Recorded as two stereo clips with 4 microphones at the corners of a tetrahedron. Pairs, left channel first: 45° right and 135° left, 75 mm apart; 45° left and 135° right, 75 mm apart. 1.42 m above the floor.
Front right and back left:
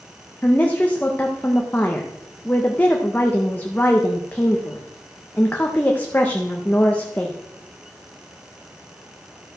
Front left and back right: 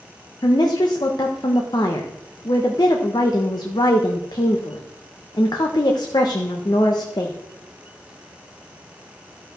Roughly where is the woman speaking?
Ahead left.